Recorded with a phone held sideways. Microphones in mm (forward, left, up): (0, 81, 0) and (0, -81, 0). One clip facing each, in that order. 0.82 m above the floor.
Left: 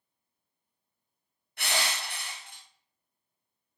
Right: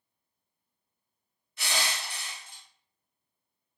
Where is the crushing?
65° left (ahead or behind), 0.6 m.